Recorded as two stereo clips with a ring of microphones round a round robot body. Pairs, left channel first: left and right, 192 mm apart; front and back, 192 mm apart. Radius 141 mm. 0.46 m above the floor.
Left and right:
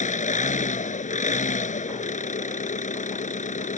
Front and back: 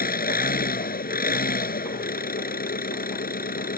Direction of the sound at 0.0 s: 40° left.